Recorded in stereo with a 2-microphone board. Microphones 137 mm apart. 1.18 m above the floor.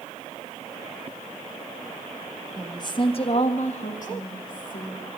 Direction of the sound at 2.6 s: 25° left (ahead or behind).